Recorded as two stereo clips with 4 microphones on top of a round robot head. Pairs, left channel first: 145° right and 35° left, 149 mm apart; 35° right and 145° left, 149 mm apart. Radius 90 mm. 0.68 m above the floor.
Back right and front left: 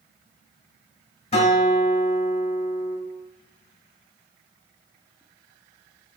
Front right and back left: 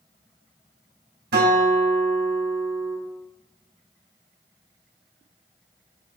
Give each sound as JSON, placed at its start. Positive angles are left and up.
{"t": 1.3, "sound": "a guitar", "azimuth_deg": 165, "distance_m": 3.0}